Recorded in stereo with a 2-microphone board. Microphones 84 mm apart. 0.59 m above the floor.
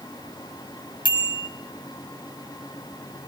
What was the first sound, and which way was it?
A bicycle bell, 75° left (ahead or behind).